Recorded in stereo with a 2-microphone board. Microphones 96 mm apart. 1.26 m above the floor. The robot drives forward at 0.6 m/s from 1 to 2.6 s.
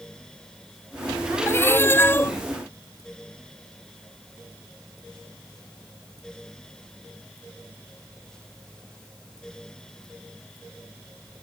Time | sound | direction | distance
1.5 | a cat meowing | 25° left (ahead or behind) | ?